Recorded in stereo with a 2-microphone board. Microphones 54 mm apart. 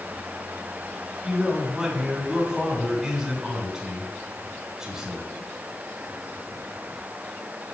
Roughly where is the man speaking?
Centre.